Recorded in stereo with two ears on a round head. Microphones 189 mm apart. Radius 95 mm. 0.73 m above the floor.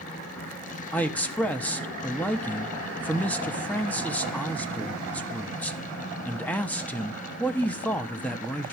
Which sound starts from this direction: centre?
A man speaking, at 0.9 s.